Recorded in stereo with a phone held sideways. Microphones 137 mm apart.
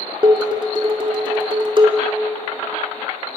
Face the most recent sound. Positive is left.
turn(degrees=-35)  # may be behind; listen again after turning